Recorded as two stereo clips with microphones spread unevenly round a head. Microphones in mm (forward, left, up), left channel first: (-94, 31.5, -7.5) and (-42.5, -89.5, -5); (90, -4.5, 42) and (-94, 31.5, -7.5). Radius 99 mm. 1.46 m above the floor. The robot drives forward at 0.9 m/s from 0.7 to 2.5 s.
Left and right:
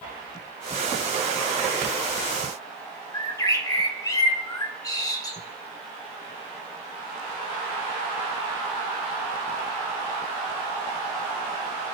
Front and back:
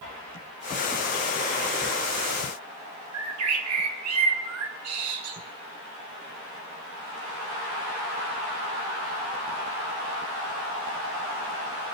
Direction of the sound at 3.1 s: 175° left.